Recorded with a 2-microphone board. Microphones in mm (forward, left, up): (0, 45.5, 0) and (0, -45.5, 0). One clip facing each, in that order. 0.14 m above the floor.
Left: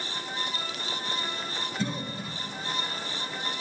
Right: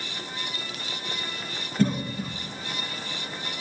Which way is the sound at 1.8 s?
55° right (ahead or behind).